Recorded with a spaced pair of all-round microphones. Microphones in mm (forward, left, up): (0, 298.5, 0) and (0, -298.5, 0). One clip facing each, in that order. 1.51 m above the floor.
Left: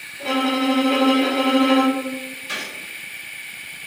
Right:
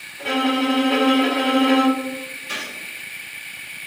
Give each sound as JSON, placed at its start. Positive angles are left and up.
{"t": 0.2, "sound": "a violin", "side_deg": -40, "distance_m": 1.3}
{"t": 2.5, "sound": "a gunshot", "side_deg": 15, "distance_m": 1.3}